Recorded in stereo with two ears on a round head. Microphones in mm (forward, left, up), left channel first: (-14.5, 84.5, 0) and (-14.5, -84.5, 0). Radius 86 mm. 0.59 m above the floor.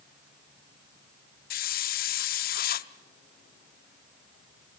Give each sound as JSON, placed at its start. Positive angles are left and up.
{"t": 1.5, "sound": "a hiss", "side_deg": 55, "distance_m": 0.7}